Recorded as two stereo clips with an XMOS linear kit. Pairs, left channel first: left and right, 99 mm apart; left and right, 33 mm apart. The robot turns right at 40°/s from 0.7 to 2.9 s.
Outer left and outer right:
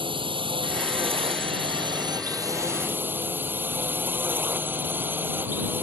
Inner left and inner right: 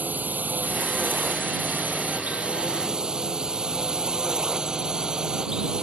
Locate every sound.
0.0 s a drone: 110° right; by 5.8 s 25° right